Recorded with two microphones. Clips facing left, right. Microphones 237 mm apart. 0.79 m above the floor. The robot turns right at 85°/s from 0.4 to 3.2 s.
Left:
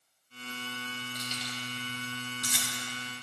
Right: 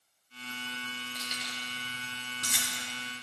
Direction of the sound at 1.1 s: Centre (ahead or behind).